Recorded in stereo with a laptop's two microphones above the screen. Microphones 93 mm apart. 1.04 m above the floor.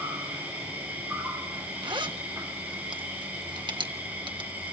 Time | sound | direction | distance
0.0 | an insect | 20° right (ahead or behind) | 9 m
1.8 | a zipper | 55° right (ahead or behind) | 1.5 m